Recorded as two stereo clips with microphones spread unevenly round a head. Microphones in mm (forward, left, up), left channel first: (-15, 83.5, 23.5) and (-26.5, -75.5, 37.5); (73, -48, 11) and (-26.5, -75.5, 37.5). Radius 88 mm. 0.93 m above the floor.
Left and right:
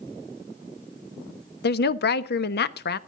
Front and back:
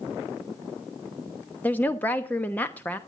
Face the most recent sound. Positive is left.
turn(degrees=90)